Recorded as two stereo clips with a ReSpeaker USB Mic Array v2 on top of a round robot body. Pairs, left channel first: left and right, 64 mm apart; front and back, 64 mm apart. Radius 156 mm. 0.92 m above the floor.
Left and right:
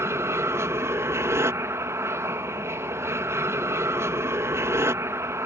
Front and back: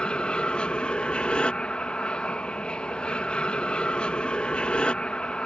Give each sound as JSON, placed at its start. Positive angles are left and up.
{"t": 0.0, "sound": "an aircraft", "azimuth_deg": -70}